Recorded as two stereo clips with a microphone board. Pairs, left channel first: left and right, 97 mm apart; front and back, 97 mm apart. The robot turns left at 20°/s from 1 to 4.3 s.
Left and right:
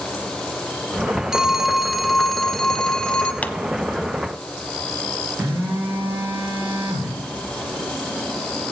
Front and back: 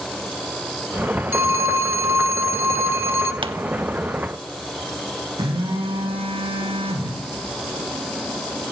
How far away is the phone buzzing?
About 2.5 m.